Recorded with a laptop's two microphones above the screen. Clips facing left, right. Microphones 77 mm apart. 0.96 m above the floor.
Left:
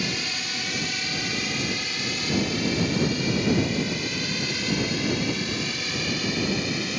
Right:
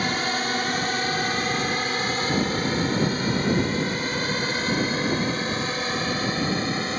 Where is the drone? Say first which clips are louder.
Right 6 dB; 50° right (ahead or behind); by 7.0 s 40° right (ahead or behind).